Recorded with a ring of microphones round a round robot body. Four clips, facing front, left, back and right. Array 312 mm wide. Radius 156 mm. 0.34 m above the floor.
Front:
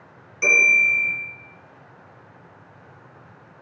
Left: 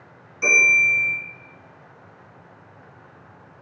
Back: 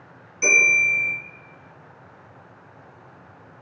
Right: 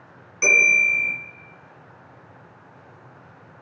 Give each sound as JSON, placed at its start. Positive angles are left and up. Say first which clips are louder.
{"t": 0.4, "sound": "a bell", "louder": "even, front 1 dB", "azimuth_deg": -65, "distance_m": 1.7}